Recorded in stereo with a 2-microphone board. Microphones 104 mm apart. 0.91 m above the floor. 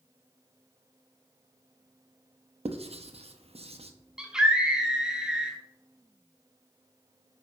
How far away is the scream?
About 2 m.